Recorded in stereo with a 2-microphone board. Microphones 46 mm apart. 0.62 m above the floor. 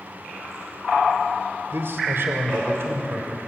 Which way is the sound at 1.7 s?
55° right (ahead or behind).